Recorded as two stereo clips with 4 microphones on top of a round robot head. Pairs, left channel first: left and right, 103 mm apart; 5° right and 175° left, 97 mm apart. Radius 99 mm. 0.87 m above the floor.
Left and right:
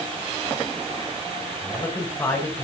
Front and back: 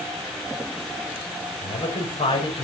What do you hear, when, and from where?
1.6 s a man speaking: 20° left, 5 m